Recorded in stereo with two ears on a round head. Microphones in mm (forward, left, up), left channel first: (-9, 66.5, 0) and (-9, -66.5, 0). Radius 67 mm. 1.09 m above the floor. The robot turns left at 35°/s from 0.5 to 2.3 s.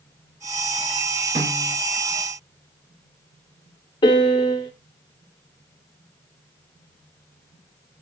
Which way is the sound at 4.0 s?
30° left (ahead or behind).